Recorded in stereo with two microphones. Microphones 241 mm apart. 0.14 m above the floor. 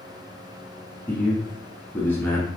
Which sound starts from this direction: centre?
A man speaking, at 1.1 s.